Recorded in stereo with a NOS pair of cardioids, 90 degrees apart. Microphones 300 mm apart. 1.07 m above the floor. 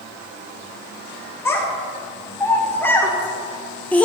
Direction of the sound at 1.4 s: 10° left.